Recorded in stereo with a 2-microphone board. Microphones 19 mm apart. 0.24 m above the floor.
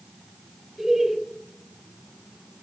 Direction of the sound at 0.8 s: 20° right (ahead or behind).